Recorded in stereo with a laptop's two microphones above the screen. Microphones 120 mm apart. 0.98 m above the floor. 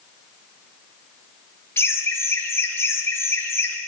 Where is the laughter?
20° left (ahead or behind), 1.3 m.